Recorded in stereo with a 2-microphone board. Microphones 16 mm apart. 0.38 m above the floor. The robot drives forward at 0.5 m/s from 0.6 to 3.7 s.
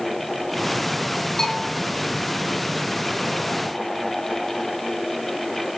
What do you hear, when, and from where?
1.4 s a bell: 35° left (ahead or behind), 6.5 m